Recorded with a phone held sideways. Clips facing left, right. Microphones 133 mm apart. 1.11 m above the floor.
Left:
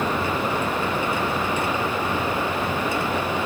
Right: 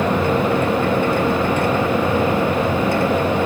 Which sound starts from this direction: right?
A machine running, at 0.0 s.